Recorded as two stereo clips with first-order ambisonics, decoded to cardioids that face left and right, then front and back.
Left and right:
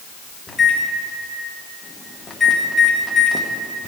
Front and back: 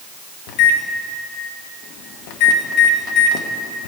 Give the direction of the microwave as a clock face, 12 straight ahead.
12 o'clock.